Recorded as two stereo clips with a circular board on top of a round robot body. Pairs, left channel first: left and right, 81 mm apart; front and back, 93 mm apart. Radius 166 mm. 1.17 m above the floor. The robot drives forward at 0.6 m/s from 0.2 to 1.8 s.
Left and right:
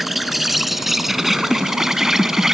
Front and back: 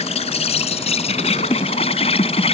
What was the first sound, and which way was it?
An insect, 5° right.